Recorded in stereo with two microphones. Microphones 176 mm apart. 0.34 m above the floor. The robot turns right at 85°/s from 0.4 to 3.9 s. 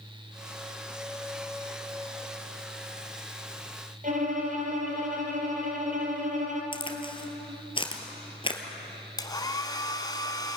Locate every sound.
4.0 s a violin: 45° right (ahead or behind), 3 m
6.7 s a crack: 30° left (ahead or behind), 2 m
9.2 s a hair dryer: 20° left (ahead or behind), 1.2 m